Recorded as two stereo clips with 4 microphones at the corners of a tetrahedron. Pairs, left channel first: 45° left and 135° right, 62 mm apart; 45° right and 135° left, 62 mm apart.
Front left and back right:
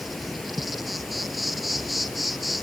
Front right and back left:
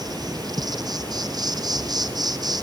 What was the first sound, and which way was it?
An insect, 135° left.